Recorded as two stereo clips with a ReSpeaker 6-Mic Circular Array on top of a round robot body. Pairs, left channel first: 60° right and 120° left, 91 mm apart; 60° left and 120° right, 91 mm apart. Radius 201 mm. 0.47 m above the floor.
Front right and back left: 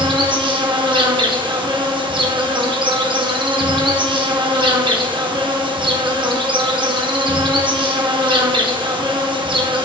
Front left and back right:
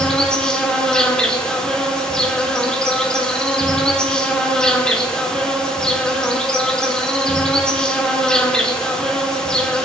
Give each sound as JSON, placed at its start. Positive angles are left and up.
{"t": 0.0, "sound": "an insect", "azimuth_deg": 140, "distance_m": 1.4}